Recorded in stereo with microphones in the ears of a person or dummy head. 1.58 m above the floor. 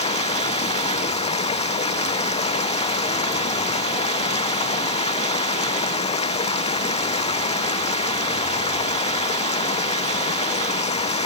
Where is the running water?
30° left (ahead or behind).